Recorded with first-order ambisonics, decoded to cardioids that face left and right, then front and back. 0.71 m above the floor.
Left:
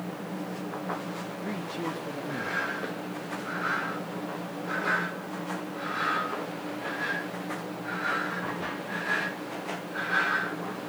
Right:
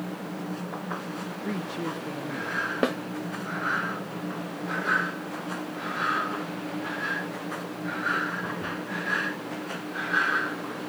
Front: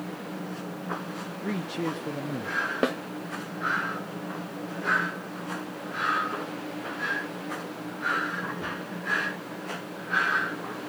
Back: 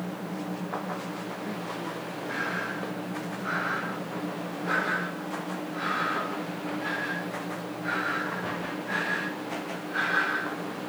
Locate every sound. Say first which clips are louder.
1.4 s a man speaking: right 2 dB, front 6 dB; 25° right, 1.1 m; by 2.7 s 10° left, 1.7 m
2.8 s a snare drum: right 9 dB, front 9 dB; 45° right, 1.3 m